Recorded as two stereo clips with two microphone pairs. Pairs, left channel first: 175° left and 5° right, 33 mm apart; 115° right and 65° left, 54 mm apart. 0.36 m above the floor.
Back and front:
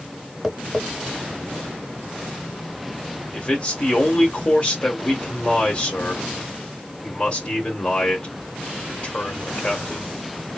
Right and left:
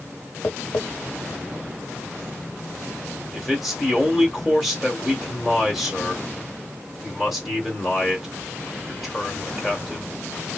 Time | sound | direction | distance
0.4 | tapping | 90° right | 0.7 m
3.3 | a man speaking | 150° left | 1.4 m